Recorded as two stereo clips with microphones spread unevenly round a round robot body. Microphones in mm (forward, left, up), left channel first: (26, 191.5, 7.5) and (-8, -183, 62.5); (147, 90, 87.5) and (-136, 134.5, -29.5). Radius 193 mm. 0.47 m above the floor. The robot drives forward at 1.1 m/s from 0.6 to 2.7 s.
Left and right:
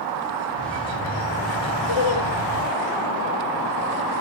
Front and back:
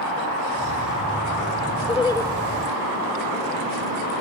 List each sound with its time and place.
1.9 s laughter: 70° left, 2.0 m; by 2.3 s 85° left, 1.9 m